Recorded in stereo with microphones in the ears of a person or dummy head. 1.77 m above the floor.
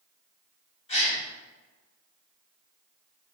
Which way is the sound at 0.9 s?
30° left (ahead or behind).